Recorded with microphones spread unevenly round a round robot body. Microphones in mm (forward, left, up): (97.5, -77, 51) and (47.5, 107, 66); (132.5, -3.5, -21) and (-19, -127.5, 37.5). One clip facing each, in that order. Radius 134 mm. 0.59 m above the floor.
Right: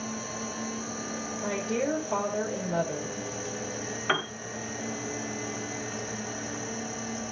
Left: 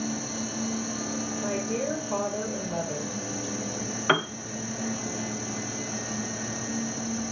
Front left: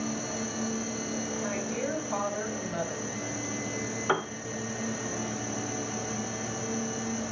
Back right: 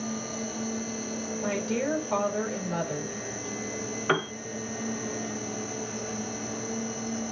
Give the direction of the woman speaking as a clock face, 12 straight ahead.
5 o'clock.